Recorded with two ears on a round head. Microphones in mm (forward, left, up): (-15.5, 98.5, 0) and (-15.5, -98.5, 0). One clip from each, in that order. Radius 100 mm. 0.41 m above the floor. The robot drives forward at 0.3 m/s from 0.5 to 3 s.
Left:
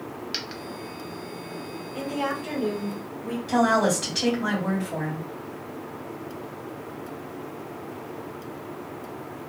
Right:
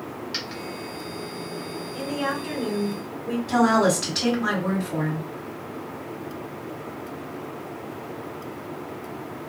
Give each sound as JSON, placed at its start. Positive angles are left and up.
{"t": 0.3, "sound": "a dropped coin", "side_deg": 15, "distance_m": 0.7}
{"t": 1.9, "sound": "a woman speaking", "side_deg": 25, "distance_m": 1.1}
{"t": 3.5, "sound": "a woman speaking", "side_deg": 0, "distance_m": 2.0}